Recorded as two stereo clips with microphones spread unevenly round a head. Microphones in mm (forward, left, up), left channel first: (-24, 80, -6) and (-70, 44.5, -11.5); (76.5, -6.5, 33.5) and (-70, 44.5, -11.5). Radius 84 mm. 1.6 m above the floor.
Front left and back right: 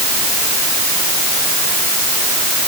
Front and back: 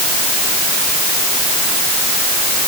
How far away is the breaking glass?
I don't hear breaking glass.